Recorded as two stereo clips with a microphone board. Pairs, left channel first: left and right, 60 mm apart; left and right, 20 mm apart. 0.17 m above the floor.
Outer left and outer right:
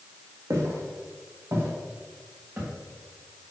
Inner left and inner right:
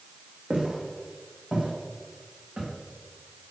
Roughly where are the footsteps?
Right.